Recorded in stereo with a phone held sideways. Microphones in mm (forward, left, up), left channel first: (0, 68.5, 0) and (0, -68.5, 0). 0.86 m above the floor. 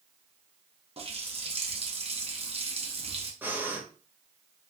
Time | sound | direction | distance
1.0 | a running tap | 45° right (ahead or behind) | 0.8 m
3.4 | breathing | 15° right (ahead or behind) | 0.8 m